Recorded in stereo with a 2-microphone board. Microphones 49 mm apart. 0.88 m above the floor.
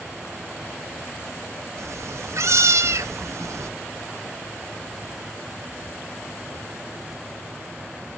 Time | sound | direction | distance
1.8 | a cat meowing | 65° right (ahead or behind) | 0.5 m